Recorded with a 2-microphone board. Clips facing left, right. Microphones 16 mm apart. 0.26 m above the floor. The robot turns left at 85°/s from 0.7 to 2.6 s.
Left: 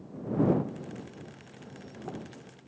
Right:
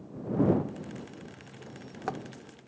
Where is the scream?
No scream in this recording.